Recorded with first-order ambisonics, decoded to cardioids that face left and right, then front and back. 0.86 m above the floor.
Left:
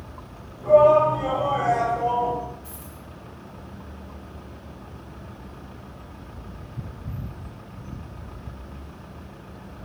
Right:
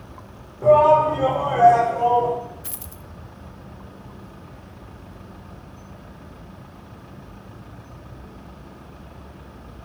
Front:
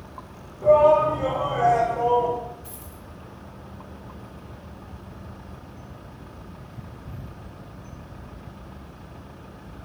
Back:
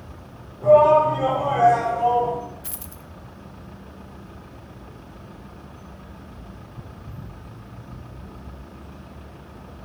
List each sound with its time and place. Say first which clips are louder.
0.6 s a shout: right 1 dB, back 2 dB; 85° right, 2.5 m; by 2.4 s 120° right, 3.5 m
2.6 s a dropped coin: right 2 dB, back 2 dB; 130° right, 0.6 m